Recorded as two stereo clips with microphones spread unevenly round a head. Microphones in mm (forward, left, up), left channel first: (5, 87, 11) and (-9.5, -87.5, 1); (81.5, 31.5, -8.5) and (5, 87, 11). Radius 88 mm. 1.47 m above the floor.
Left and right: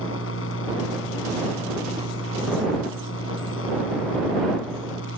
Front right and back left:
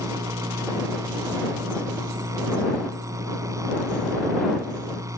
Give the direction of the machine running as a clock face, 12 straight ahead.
9 o'clock.